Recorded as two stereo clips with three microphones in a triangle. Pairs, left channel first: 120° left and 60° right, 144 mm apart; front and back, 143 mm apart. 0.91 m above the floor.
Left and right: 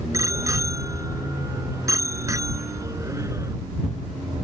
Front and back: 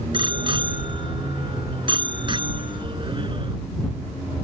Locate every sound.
0.1 s a bicycle bell: 125° right